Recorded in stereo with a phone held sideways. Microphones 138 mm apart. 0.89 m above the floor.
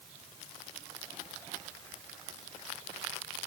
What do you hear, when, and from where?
Only background noise.